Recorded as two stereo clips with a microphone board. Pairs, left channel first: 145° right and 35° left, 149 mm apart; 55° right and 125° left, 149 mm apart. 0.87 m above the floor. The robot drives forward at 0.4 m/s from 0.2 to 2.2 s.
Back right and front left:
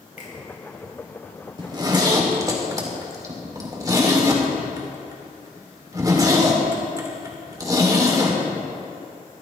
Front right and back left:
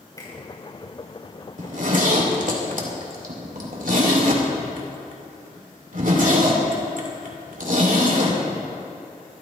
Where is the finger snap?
120° right, 4.5 m.